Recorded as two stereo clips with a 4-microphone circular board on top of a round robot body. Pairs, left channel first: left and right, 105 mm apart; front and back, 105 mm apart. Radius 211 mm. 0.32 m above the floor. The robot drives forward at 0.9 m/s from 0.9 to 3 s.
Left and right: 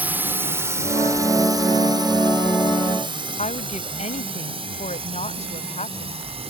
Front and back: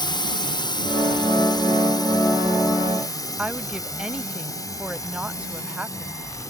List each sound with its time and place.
0.0 s a drone: 20° right; by 6.5 s 60° right
3.4 s a woman speaking: 100° left